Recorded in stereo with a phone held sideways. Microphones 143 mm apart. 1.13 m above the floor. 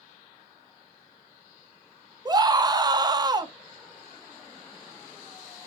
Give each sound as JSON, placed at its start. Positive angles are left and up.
{"t": 2.2, "sound": "a scream", "side_deg": -25, "distance_m": 0.9}